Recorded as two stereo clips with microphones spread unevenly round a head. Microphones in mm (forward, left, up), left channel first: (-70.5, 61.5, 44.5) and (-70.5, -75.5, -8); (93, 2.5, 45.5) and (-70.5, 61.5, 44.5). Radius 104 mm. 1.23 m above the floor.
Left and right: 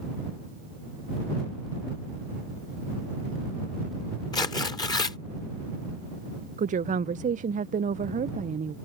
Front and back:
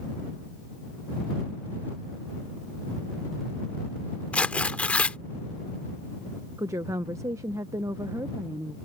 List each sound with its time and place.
4.3 s tearing paper: 60° left
6.6 s a woman speaking: 125° right